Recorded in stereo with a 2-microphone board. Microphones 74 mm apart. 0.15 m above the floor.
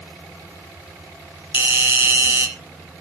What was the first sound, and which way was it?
A doorbell, 35° right (ahead or behind).